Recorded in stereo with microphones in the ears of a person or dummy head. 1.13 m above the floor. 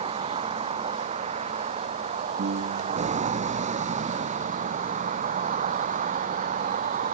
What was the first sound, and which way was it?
A vehicle, 35° right (ahead or behind).